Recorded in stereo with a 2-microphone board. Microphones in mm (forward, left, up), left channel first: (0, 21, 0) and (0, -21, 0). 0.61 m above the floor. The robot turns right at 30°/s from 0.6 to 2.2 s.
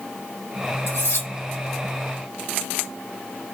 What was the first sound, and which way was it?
Cutlery clinking, 65° left (ahead or behind).